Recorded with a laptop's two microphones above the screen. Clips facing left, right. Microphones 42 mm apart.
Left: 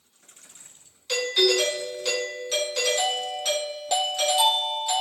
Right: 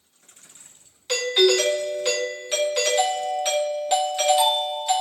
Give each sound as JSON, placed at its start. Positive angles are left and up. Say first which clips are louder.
{"t": 1.1, "sound": "a doorbell", "louder": "right 3 dB", "side_deg": -20, "distance_m": 2.5}